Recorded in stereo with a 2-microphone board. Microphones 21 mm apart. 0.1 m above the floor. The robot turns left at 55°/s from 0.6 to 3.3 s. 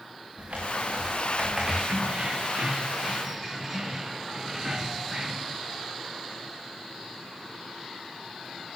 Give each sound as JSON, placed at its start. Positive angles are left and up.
{"t": 0.4, "sound": "typing on a keyboard", "azimuth_deg": -115, "distance_m": 6.5}
{"t": 1.9, "sound": "keys jangling", "azimuth_deg": -90, "distance_m": 4.5}